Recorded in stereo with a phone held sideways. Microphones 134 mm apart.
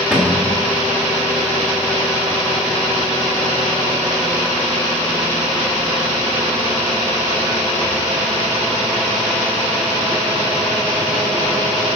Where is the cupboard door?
5° right (ahead or behind), 2.0 m.